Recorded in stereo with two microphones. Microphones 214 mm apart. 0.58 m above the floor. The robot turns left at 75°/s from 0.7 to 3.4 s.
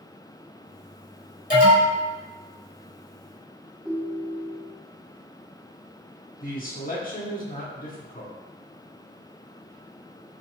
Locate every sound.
1.5 s an alarm: 60° left, 1.5 m; by 2.0 s 25° left, 1.5 m
3.9 s a ringtone: 5° right (ahead or behind), 0.6 m
6.4 s a man speaking: 40° left (ahead or behind), 0.9 m